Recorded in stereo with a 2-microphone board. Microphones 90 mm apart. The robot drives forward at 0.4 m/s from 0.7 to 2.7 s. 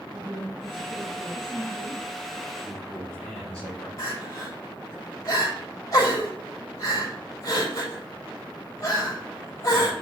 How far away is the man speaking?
About 4 m.